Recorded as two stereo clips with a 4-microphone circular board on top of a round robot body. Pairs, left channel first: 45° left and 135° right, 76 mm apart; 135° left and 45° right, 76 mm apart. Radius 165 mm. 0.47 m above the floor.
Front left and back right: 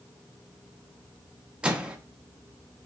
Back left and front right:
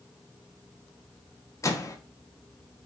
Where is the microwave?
155° left, 0.6 m.